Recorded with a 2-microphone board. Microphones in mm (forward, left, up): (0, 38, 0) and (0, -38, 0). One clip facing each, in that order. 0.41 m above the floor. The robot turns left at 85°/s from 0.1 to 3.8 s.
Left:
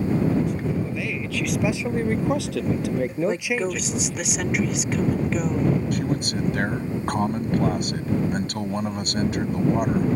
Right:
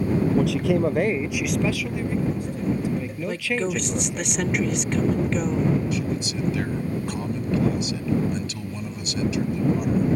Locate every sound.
0.3 s a man speaking: 80° right; by 4.3 s 15° right
3.3 s a woman speaking: 50° left; by 5.8 s 5° left
5.9 s a man speaking: 50° left (ahead or behind)